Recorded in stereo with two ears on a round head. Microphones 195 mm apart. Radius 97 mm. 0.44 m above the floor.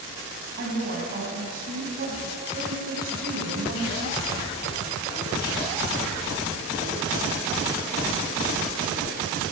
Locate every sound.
0.6 s a woman speaking: 40° right (ahead or behind), 3.5 m